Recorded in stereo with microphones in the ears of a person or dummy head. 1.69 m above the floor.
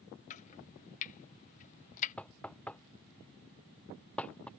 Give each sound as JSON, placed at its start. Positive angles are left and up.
{"t": 0.3, "sound": "chopping", "side_deg": 40}
{"t": 2.2, "sound": "knocking", "side_deg": 10}